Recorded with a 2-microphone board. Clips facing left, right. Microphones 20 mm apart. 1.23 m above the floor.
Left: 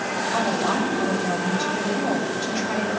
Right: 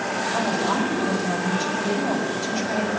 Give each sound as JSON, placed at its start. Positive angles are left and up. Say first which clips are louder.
{"t": 0.3, "sound": "a woman speaking", "louder": "left 1 dB", "side_deg": 90, "distance_m": 6.0}